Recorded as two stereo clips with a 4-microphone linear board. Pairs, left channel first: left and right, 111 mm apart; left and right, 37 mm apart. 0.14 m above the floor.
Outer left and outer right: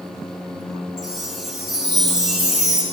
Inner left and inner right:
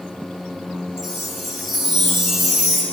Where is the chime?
Centre (ahead or behind), 1.9 m.